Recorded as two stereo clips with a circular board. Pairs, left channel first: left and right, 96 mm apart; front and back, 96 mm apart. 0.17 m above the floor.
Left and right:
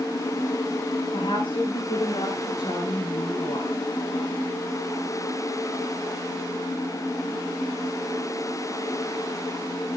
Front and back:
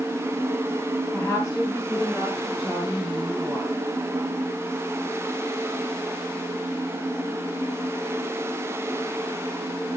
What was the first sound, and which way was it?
A woman speaking, 80° left.